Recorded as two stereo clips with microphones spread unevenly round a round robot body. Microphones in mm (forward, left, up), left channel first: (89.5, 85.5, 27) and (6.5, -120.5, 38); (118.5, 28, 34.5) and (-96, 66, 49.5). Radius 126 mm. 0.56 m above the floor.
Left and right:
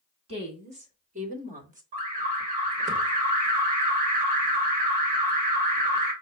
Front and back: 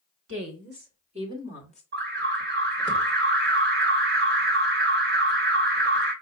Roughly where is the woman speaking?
Behind.